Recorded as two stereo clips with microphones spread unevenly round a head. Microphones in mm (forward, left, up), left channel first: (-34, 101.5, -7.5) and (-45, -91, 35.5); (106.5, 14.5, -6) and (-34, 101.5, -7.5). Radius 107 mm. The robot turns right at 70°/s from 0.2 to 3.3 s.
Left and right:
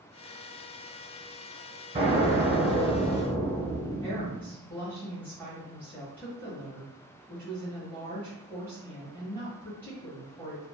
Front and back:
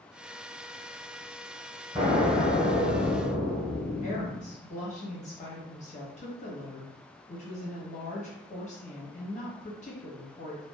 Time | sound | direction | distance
1.9 | an explosion | 135° right | 1.3 m
4.0 | a woman speaking | 10° left | 1.3 m